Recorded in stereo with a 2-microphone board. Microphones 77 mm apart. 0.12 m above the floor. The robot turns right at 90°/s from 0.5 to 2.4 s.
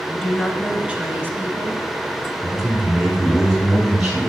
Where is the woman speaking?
175° left, 1.3 m; by 1.9 s 60° right, 1.3 m.